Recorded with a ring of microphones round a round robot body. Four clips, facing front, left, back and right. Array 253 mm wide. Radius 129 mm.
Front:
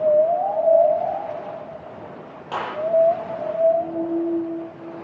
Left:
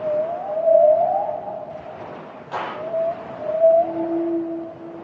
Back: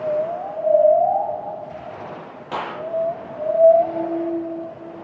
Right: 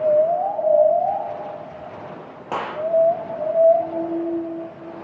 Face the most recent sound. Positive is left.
turn(degrees=-105)